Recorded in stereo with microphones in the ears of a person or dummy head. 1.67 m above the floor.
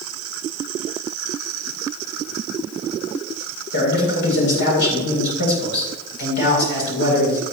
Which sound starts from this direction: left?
A man speaking, at 3.7 s.